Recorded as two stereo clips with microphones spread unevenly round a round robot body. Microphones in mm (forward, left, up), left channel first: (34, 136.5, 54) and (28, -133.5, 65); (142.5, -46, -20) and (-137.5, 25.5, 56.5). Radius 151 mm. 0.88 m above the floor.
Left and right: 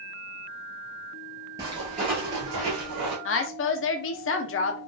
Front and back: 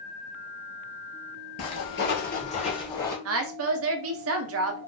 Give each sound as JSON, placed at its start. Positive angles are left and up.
{"t": 1.6, "sound": "footsteps", "azimuth_deg": -30, "distance_m": 0.9}
{"t": 3.2, "sound": "a woman speaking", "azimuth_deg": 115, "distance_m": 0.5}